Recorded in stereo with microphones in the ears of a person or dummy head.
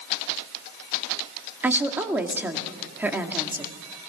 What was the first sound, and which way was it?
A woman speaking, 5° right (ahead or behind).